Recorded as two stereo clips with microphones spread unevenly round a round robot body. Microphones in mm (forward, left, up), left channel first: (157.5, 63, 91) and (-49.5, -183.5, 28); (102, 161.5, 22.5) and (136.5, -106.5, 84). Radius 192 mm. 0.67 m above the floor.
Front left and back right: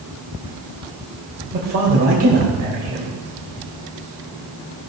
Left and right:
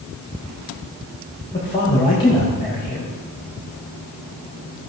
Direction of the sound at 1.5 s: 170° left.